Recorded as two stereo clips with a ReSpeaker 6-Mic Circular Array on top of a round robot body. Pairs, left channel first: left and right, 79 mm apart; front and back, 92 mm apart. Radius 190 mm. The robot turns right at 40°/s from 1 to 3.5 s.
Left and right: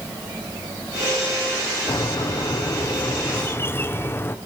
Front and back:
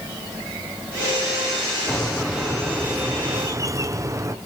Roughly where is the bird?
Left.